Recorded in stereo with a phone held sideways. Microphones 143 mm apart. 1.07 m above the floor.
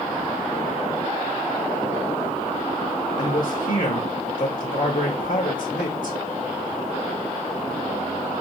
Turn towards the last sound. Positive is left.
turn(degrees=70)  # may be behind; listen again after turning